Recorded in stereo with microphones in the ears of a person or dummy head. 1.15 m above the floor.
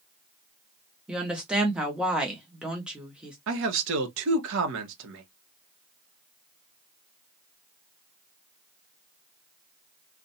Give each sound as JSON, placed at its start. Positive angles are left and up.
{"t": 1.1, "sound": "a woman speaking", "side_deg": 0, "distance_m": 0.7}
{"t": 3.5, "sound": "a man speaking", "side_deg": -65, "distance_m": 0.8}